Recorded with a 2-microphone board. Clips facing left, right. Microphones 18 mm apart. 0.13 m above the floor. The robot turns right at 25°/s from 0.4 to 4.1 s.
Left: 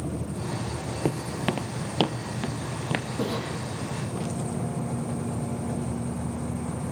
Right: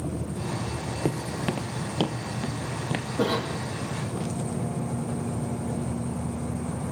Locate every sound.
1.1 s footsteps: 10° left (ahead or behind), 1.1 m; by 3.1 s 20° left (ahead or behind), 2 m
3.2 s a cough: 70° right (ahead or behind), 6.5 m; by 3.6 s 60° right (ahead or behind), 6.5 m